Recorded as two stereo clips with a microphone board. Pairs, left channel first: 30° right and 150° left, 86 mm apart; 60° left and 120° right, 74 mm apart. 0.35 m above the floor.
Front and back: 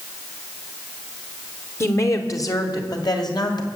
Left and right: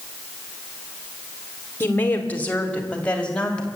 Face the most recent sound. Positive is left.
turn(degrees=-15)